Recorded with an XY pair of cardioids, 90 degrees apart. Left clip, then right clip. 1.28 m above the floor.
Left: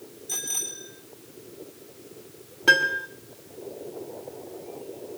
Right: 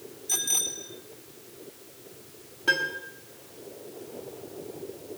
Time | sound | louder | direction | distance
0.3 | a bicycle bell | right 3 dB | 25° right | 7.5 m
2.7 | a piano | left 6 dB | 55° left | 1.6 m